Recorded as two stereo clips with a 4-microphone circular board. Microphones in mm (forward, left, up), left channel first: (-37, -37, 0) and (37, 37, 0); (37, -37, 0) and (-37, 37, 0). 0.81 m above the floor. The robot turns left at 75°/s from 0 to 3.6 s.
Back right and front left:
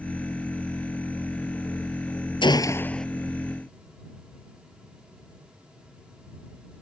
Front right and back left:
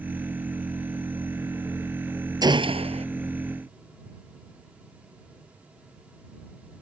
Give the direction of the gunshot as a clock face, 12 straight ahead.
6 o'clock.